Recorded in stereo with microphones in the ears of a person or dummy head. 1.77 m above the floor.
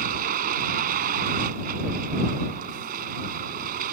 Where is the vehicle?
45° right (ahead or behind).